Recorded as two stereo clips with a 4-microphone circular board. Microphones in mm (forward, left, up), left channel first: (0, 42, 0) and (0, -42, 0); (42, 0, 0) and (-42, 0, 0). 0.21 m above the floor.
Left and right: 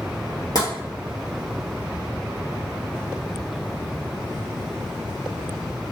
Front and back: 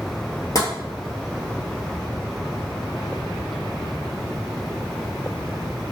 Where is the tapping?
50° left, 1.1 m.